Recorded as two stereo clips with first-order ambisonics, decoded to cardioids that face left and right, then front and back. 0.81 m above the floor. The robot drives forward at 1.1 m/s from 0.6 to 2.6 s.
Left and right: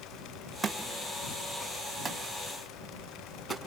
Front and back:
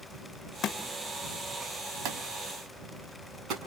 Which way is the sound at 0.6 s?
15° right.